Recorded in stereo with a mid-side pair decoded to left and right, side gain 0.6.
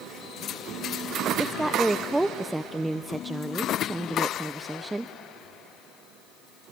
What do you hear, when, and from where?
1.4 s a woman speaking: 10° right, 0.6 m